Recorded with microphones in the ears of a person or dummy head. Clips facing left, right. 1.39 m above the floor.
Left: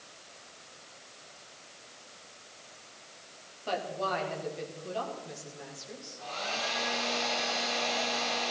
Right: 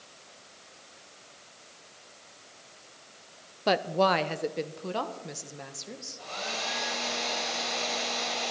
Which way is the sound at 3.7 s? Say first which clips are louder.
Right 8 dB; 65° right (ahead or behind).